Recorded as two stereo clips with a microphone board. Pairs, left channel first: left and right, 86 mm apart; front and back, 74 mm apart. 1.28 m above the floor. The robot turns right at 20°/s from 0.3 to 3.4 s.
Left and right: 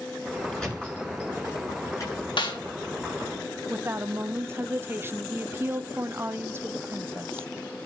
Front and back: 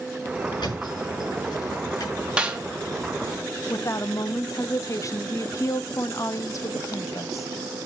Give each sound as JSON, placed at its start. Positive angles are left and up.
{"t": 0.6, "sound": "a thud", "azimuth_deg": 10, "distance_m": 8.0}
{"t": 2.4, "sound": "a snare drum", "azimuth_deg": 105, "distance_m": 1.2}
{"t": 3.7, "sound": "a woman speaking", "azimuth_deg": -30, "distance_m": 0.6}